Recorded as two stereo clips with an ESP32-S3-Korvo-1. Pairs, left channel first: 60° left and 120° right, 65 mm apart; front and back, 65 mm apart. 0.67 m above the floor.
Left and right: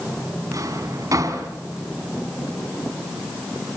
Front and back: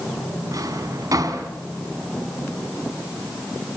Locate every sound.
0.5 s a drawer: 150° right, 3 m